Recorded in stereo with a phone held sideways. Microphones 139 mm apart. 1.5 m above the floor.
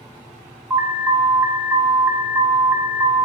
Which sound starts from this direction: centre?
An alarm, at 0.7 s.